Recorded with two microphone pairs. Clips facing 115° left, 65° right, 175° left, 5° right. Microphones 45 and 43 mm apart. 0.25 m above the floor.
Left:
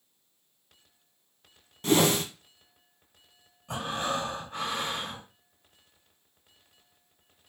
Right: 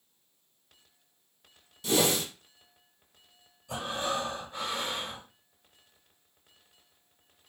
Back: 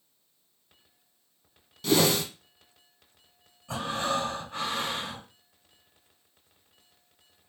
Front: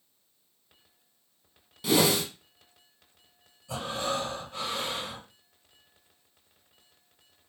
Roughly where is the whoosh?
Left.